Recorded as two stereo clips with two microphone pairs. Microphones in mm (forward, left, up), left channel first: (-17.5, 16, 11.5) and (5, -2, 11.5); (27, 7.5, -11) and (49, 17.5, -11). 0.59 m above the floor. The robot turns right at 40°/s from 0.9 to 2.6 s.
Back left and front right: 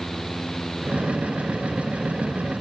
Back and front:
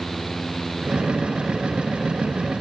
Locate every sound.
Only background noise.